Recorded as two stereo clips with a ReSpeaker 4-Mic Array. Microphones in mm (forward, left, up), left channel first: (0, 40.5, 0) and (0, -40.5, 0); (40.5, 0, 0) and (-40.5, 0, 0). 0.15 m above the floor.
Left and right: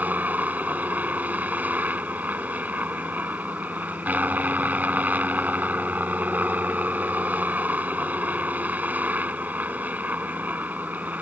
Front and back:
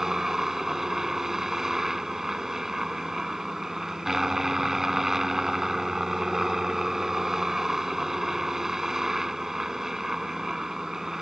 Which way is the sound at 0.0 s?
105° right.